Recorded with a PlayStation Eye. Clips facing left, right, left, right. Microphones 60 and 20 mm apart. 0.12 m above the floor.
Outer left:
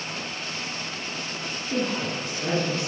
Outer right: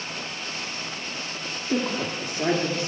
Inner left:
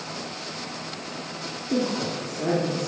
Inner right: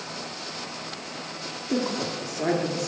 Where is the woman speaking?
35° right (ahead or behind), 3 m; by 2.9 s 40° right (ahead or behind), 2.5 m.